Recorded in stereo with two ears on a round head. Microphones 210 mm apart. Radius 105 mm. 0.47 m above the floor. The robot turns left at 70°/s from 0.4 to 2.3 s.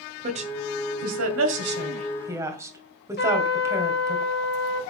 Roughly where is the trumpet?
Left.